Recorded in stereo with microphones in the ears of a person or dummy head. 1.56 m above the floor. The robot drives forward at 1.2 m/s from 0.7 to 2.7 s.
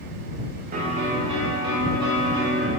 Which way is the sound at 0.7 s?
40° right (ahead or behind).